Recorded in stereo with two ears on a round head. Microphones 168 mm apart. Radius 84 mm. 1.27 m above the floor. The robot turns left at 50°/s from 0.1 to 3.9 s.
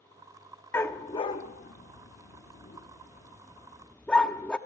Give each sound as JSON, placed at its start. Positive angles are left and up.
{"t": 0.7, "sound": "a dog barking", "side_deg": 10, "distance_m": 0.9}